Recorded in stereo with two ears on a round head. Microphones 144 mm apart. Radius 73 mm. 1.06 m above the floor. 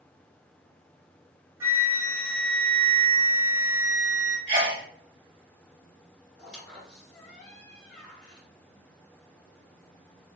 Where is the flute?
20° right (ahead or behind), 1.8 m.